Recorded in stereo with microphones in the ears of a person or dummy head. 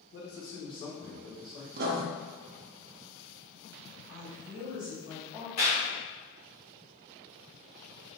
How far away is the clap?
About 1.6 m.